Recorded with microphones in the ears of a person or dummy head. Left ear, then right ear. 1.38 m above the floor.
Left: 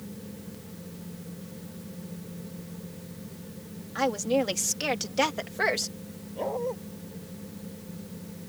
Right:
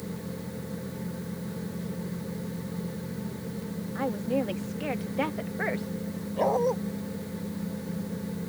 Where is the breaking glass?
No breaking glass in this recording.